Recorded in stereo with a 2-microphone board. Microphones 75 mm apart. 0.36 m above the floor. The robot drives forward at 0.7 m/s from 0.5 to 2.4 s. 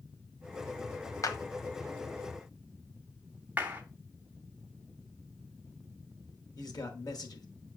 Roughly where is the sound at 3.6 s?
Right.